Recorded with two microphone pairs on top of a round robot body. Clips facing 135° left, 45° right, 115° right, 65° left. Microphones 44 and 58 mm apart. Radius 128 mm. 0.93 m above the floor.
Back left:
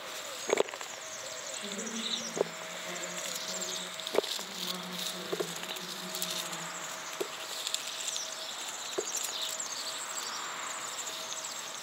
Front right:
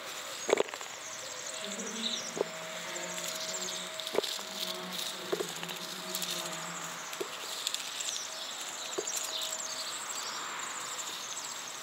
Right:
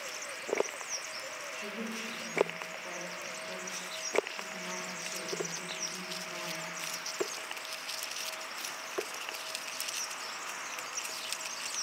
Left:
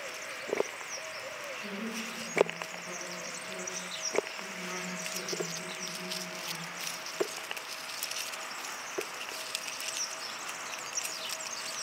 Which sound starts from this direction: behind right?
A woman speaking, at 1.5 s.